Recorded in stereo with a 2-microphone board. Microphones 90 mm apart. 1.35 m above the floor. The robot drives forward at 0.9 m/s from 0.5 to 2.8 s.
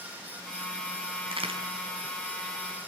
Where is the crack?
80° right, 4.5 m.